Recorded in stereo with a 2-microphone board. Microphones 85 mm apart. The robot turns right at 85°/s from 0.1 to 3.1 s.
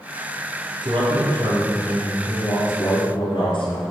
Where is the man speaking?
115° right, 4.5 m; by 3.9 s 80° left, 4.5 m.